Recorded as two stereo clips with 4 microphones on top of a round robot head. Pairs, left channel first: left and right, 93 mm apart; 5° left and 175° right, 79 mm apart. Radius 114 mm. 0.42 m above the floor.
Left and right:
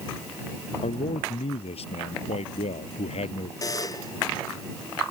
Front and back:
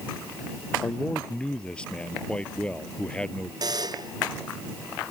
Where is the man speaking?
85° left.